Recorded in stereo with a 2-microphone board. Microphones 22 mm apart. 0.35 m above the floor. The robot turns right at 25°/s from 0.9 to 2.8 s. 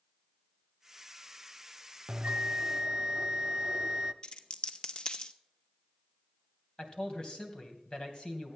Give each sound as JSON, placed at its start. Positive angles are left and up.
{"t": 2.1, "sound": "a bell", "side_deg": -45, "distance_m": 0.6}
{"t": 4.2, "sound": "a dropped coin", "side_deg": 40, "distance_m": 0.7}
{"t": 6.8, "sound": "a man speaking", "side_deg": 40, "distance_m": 2.5}